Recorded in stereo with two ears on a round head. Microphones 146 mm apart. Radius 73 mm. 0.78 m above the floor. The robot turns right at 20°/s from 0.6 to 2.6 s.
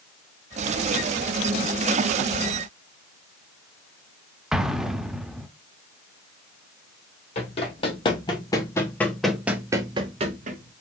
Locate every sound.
4.5 s an explosion: 5° right (ahead or behind), 0.6 m
7.3 s running footsteps: 35° left (ahead or behind), 2 m; by 10.7 s 50° right (ahead or behind), 1.2 m